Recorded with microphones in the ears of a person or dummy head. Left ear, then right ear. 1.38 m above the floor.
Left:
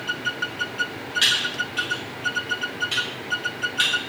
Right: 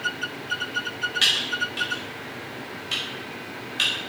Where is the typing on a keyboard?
10° right (ahead or behind), 0.7 m.